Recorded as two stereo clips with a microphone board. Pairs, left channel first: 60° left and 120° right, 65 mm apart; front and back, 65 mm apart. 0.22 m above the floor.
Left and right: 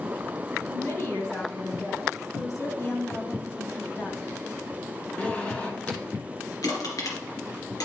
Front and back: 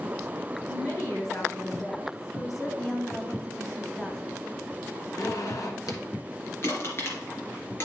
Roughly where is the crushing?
Ahead left.